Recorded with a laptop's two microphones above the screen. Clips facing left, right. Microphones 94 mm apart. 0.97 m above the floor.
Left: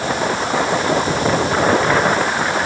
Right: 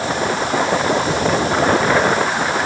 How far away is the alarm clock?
I don't hear an alarm clock.